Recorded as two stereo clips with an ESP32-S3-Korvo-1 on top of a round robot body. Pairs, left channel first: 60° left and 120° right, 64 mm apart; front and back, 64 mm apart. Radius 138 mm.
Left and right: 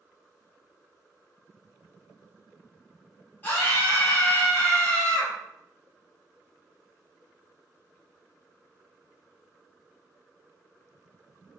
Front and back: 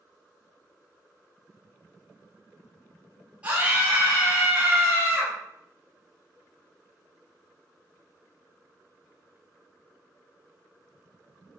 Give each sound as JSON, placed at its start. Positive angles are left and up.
{"t": 3.4, "sound": "a scream", "azimuth_deg": 110, "distance_m": 1.1}